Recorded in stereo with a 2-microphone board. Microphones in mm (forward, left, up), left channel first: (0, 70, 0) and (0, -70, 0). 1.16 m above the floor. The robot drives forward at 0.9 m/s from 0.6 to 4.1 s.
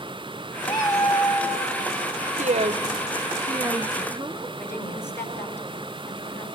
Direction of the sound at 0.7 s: 35° left (ahead or behind).